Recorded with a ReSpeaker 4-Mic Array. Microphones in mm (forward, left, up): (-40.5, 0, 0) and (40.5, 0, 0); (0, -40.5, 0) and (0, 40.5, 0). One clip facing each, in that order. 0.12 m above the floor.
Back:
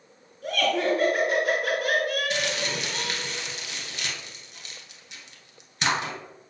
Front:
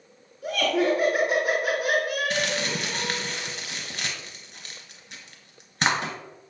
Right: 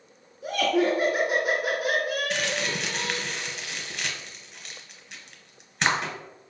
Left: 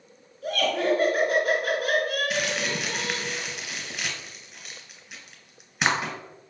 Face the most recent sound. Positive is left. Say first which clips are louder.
# front 1 dB, left 1 dB
turn(degrees=10)